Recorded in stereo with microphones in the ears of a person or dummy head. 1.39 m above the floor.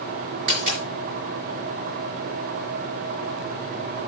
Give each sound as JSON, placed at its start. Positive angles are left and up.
{"t": 0.5, "sound": "a dropped coin", "side_deg": -40, "distance_m": 4.0}